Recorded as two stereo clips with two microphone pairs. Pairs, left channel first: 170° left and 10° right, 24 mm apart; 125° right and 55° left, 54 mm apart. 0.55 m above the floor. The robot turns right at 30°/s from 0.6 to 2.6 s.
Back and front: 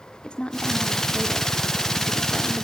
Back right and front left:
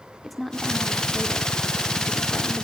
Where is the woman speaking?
145° left, 1.3 m; by 2.6 s 155° right, 1.3 m.